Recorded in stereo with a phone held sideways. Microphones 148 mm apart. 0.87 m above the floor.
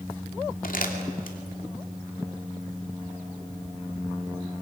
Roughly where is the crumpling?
Left.